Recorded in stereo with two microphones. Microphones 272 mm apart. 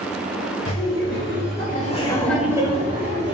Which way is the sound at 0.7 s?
55° left (ahead or behind).